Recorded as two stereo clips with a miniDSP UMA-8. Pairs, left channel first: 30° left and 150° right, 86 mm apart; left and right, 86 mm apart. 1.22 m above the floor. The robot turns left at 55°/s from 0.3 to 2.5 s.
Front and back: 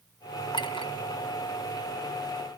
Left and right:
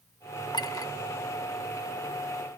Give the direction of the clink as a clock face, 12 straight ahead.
10 o'clock.